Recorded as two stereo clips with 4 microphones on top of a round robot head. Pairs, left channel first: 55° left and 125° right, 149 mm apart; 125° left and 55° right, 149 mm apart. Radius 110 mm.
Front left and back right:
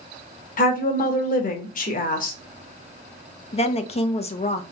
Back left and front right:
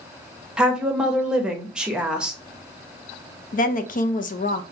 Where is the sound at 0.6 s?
30° left, 1.1 m.